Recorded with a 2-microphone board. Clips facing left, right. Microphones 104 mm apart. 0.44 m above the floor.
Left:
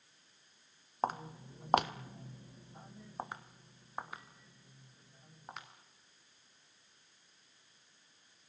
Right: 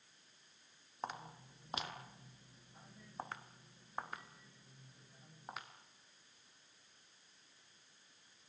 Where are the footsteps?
40° left (ahead or behind), 1.7 m; by 5.7 s centre (ahead or behind), 4.5 m.